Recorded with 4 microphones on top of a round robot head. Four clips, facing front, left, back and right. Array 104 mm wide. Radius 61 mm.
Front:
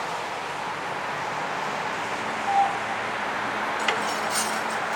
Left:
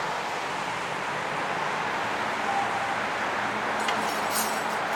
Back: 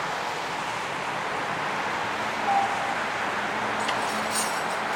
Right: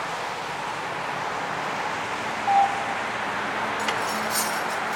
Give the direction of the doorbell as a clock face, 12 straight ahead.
3 o'clock.